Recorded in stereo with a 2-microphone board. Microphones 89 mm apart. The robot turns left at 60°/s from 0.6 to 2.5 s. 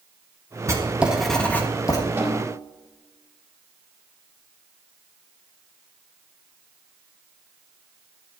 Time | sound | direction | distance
0.7 | writing | 145° right | 1.6 m
2.2 | a snare drum | 20° right (ahead or behind) | 4.5 m